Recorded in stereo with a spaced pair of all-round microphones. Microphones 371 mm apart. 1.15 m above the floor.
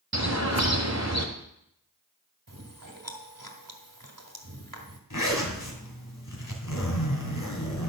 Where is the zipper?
55° left (ahead or behind), 2.5 m.